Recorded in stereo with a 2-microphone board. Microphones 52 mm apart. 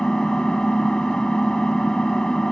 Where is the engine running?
15° left (ahead or behind).